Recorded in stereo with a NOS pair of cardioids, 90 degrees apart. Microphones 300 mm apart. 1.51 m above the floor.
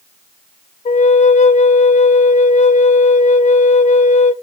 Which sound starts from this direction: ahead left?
A flute, at 0.8 s.